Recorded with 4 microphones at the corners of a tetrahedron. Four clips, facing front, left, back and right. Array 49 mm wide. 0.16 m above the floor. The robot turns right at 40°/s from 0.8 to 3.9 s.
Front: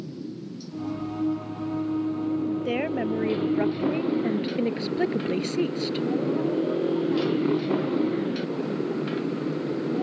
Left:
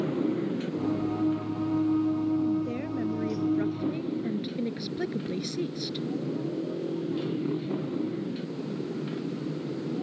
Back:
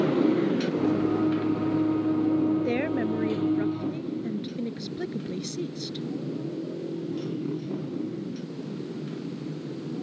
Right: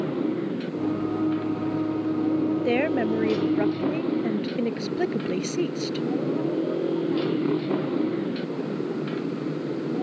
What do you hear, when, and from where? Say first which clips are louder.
0.0 s a motorcycle: right 2 dB, back 14 dB; 170° right; by 10.0 s 35° right
2.6 s a woman speaking: right 9 dB, even; 90° right; by 6.1 s 40° right